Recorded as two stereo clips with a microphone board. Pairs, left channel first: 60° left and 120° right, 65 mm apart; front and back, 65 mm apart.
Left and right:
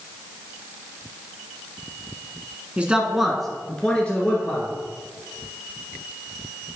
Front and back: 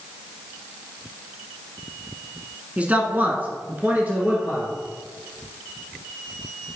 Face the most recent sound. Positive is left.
turn(degrees=120)